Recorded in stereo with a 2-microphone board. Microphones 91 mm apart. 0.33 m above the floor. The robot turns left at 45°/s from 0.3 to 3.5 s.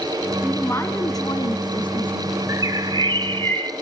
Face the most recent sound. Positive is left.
turn(degrees=-85)